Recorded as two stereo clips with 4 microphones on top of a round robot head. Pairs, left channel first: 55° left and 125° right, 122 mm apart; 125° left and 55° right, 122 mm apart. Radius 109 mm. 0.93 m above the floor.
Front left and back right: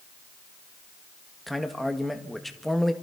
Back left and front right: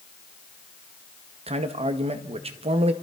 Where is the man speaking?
35° right, 1.7 m.